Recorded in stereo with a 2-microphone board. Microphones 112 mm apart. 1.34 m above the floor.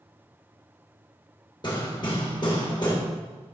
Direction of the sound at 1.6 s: 45° left (ahead or behind).